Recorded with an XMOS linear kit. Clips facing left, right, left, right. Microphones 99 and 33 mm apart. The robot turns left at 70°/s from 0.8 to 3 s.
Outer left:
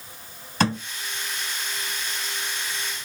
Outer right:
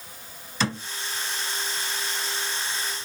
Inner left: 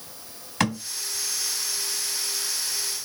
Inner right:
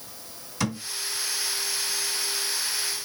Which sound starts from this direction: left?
A thud, at 0.6 s.